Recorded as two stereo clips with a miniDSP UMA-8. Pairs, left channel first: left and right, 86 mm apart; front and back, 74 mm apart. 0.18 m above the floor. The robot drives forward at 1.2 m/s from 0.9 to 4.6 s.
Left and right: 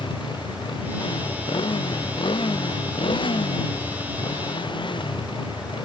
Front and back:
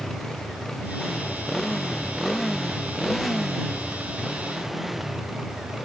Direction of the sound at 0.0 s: 85° left.